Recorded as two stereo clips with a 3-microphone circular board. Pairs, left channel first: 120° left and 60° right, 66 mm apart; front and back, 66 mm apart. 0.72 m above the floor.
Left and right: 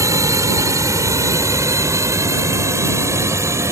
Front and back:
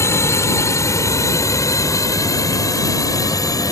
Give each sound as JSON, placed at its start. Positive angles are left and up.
{"t": 0.0, "sound": "a drone", "azimuth_deg": -35}